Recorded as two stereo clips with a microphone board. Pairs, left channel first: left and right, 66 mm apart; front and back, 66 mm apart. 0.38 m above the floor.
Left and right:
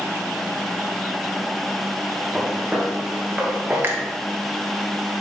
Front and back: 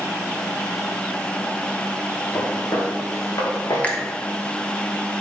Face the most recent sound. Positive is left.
turn(degrees=-60)